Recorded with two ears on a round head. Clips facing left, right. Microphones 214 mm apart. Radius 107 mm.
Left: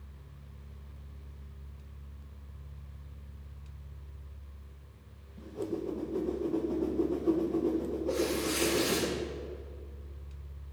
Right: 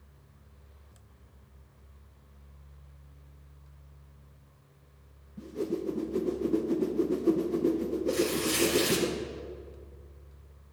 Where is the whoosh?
30° right (ahead or behind), 1.1 m.